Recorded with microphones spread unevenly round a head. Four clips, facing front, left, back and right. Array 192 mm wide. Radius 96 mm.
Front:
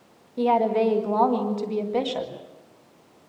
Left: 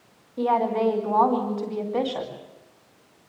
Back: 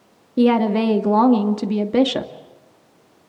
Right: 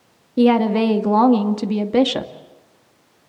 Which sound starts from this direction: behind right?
A woman speaking, at 0.4 s.